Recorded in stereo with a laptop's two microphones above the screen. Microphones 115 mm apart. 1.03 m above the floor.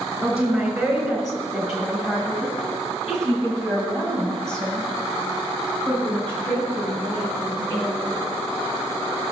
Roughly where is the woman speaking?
Centre.